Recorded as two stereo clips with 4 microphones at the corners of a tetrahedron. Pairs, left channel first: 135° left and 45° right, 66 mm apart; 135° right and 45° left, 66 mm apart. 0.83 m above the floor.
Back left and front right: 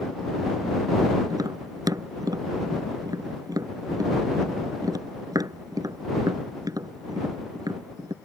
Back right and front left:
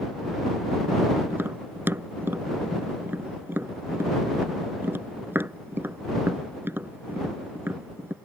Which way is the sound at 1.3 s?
15° right.